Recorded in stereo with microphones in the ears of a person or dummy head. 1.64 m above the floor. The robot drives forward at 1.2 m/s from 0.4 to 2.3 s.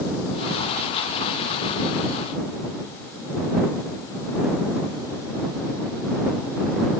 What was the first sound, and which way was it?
Only background noise.